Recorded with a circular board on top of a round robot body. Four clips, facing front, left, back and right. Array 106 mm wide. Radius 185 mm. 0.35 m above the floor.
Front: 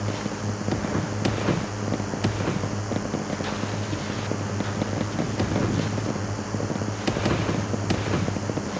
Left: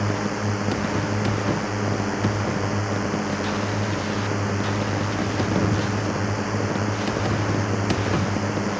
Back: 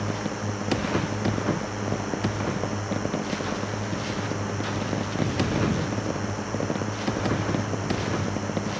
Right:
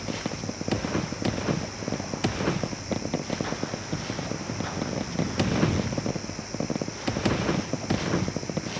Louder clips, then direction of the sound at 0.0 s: Left 7 dB, even; 100° left.